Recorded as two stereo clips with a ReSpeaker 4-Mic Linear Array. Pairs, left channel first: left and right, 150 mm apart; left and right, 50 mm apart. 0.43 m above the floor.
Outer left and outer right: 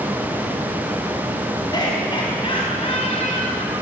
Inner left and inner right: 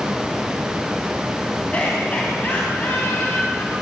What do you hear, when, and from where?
1.7 s laughter: 30° left (ahead or behind), 4 m; by 3.7 s 50° left (ahead or behind), 3.5 m